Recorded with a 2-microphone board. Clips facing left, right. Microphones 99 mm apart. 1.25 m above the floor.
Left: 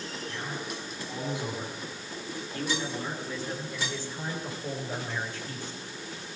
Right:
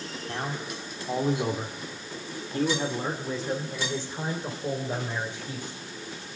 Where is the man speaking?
65° right (ahead or behind), 3 m; by 5.8 s 20° right (ahead or behind), 5.5 m.